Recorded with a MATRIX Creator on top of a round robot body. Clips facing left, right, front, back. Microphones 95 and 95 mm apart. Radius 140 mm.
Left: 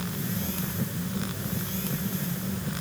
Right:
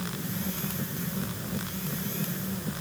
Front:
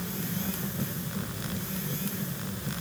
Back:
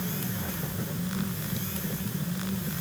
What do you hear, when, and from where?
Only background noise.